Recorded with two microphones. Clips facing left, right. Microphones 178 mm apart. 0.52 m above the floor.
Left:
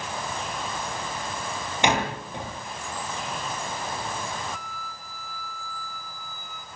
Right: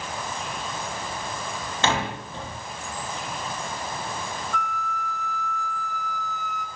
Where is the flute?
75° right (ahead or behind), 2.5 m.